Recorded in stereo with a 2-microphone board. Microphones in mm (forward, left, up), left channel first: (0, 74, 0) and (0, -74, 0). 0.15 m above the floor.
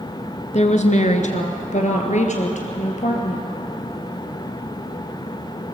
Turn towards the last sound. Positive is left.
turn(degrees=50)  # may be behind; listen again after turning